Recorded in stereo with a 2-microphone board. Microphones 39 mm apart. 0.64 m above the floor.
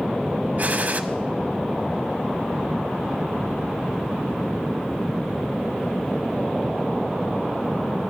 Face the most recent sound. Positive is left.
turn(degrees=-45)  # may be behind; listen again after turning